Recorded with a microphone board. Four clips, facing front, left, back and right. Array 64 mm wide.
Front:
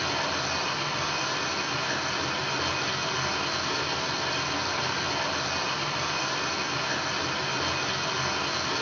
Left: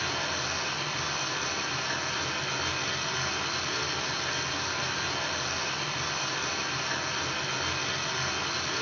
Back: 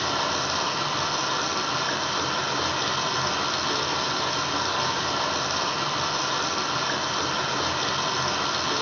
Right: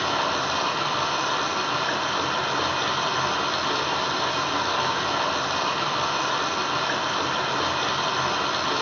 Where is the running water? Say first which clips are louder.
Right 8 dB, back 3 dB; 105° right, 0.9 m.